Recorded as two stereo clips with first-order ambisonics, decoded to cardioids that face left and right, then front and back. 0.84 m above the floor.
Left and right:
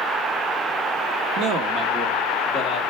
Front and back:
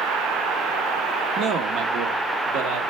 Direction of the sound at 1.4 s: 125° right.